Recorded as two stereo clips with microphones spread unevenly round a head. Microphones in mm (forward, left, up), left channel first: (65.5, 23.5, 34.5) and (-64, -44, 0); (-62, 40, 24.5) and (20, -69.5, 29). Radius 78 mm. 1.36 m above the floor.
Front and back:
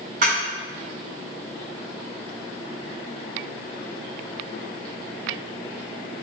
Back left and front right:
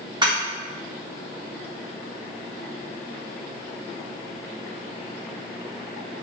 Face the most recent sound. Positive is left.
turn(degrees=-110)